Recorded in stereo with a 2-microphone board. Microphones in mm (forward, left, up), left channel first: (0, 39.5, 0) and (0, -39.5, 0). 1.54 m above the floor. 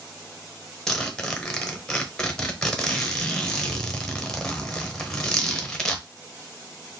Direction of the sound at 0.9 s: 10° left (ahead or behind).